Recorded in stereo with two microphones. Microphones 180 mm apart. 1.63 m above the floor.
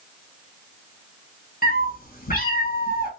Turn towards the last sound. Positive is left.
turn(degrees=50)  # may be behind; listen again after turning